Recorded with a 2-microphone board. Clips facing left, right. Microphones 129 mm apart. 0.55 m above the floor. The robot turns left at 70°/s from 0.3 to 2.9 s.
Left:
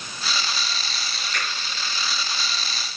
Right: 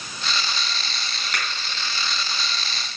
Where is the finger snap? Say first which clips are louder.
Right 1 dB; 75° right (ahead or behind), 4 m; by 1.5 s 70° right (ahead or behind), 4 m.